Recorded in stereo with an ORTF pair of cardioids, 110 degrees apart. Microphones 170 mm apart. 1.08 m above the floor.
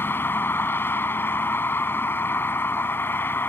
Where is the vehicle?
10° left.